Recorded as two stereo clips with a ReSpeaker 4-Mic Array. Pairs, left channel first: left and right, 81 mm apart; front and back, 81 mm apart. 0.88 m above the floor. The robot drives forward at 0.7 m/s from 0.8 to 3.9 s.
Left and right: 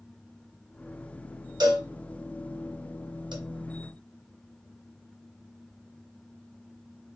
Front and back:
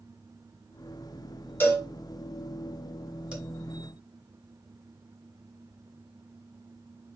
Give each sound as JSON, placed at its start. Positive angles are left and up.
{"t": 1.6, "sound": "a cowbell", "azimuth_deg": -65, "distance_m": 1.9}